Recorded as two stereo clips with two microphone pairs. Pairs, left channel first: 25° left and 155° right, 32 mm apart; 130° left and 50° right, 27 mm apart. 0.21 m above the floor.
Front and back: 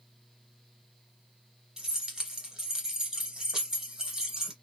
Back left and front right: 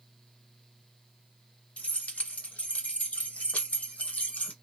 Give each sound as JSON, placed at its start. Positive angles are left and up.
{"t": 1.8, "sound": "keys jangling", "azimuth_deg": 135, "distance_m": 2.0}